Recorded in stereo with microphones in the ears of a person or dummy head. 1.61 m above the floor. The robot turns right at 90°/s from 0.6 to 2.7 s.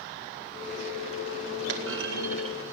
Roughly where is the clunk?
Right.